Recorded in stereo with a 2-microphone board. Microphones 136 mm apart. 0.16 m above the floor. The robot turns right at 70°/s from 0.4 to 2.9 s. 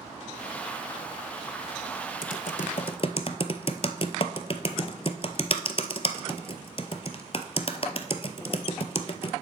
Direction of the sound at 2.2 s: 80° left.